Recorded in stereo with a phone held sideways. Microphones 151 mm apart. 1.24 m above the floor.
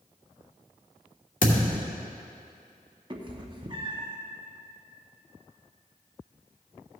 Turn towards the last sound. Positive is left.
turn(degrees=-30)  # may be behind; listen again after turning